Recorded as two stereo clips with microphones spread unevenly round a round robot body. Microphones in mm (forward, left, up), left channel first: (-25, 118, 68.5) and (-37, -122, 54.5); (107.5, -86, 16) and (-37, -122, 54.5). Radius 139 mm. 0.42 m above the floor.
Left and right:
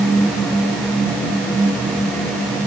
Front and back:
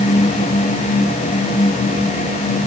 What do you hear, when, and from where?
Only background noise.